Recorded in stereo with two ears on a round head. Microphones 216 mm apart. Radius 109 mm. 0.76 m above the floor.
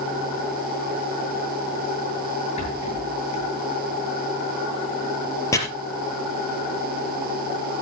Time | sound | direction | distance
2.6 | a rattle | 30° left (ahead or behind) | 8 m
5.5 | chopping | 15° left (ahead or behind) | 3.5 m